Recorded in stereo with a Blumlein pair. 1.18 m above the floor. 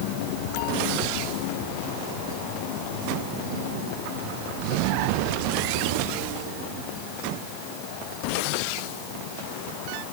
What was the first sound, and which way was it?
Only background noise.